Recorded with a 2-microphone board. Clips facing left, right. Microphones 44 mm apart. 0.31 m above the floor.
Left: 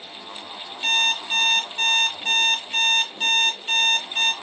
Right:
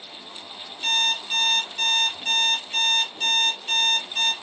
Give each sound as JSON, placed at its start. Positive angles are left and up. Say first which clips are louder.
{"t": 0.8, "sound": "an alarm clock", "louder": "left 2 dB", "side_deg": 30, "distance_m": 1.4}